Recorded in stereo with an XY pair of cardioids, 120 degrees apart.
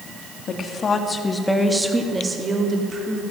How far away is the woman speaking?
About 2 m.